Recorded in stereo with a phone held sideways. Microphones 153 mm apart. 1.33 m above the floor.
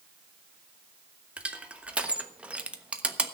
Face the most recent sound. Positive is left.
turn(degrees=-5)  # may be behind; listen again after turning